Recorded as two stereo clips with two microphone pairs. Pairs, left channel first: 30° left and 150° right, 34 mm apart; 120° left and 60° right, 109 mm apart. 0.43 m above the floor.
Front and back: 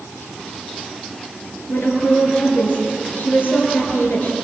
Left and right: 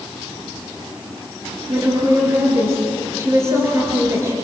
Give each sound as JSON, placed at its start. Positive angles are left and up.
{"t": 1.7, "sound": "a woman speaking", "azimuth_deg": 5, "distance_m": 7.0}